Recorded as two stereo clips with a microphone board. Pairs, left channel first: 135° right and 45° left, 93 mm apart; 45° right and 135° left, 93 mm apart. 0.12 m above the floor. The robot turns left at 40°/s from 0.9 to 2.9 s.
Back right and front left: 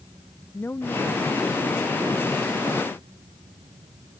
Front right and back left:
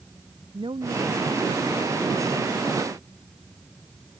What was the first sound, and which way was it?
A woman speaking, 160° left.